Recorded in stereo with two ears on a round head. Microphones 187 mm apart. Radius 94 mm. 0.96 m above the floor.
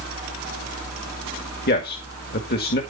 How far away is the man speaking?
About 1.9 m.